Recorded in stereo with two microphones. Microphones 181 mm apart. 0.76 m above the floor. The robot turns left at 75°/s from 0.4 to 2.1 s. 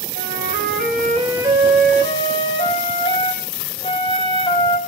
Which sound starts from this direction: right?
A flute, at 0.1 s.